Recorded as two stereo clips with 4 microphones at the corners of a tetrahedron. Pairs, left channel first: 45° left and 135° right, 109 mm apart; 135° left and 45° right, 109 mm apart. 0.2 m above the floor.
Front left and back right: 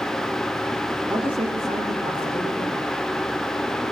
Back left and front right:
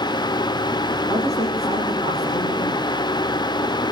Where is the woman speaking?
170° right, 5 m.